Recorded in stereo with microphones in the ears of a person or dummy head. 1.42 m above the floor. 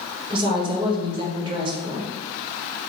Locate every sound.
0.3 s a woman speaking: 25° right (ahead or behind), 0.7 m